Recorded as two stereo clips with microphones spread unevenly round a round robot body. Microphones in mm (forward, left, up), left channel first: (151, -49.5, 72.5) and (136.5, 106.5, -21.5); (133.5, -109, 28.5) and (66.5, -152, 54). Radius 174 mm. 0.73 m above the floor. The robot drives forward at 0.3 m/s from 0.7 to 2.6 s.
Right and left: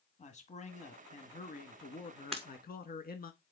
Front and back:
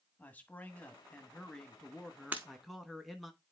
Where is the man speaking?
20° right, 1.5 m; by 3.3 s 35° right, 1.1 m.